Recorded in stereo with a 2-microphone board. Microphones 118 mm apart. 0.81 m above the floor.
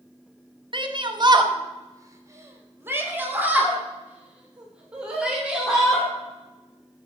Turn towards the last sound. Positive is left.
turn(degrees=-5)  # may be behind; listen again after turning